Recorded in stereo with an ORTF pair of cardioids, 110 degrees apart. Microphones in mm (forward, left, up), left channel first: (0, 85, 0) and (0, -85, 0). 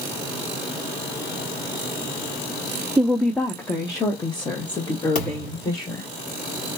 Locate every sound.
3.0 s a woman speaking: 5° right, 0.6 m; by 6.1 s 30° left, 2.5 m
5.2 s a thud: 60° left, 2.5 m